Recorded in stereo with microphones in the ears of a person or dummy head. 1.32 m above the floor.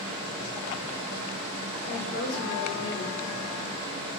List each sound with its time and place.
1.9 s a woman speaking: 75° left (ahead or behind), 0.9 m